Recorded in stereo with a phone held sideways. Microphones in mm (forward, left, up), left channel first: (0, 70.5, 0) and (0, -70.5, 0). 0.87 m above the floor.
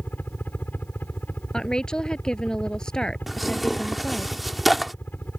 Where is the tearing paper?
Centre (ahead or behind).